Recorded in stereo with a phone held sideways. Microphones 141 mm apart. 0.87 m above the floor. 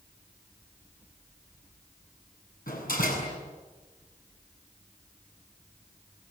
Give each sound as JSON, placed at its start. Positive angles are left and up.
{"t": 2.7, "sound": "a door slam", "side_deg": 80, "distance_m": 7.5}